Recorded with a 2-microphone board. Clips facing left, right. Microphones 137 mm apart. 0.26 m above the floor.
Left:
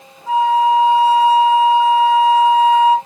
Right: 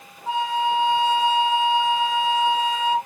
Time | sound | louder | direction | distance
0.3 | a flute | left 9 dB | 30° right (ahead or behind) | 0.7 m